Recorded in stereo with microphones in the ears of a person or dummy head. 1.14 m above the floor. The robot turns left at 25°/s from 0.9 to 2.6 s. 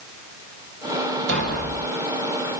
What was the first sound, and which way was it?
A thud, 80° right.